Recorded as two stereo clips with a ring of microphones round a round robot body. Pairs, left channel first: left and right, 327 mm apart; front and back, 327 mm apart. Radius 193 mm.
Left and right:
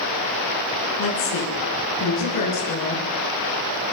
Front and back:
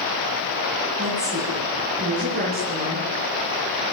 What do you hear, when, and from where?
1.0 s a woman speaking: 110° left, 7 m; by 3.1 s 115° left, 8.5 m